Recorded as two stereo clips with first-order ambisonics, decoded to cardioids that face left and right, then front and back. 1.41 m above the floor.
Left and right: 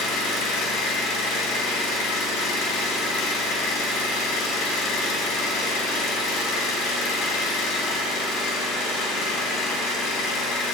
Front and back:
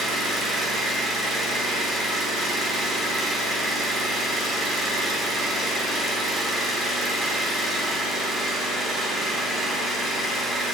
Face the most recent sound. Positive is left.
turn(degrees=105)